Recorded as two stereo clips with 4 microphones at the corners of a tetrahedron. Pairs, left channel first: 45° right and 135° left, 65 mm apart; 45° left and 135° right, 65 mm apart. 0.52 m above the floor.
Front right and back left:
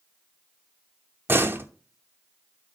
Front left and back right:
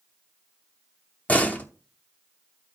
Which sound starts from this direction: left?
A door slam, at 1.3 s.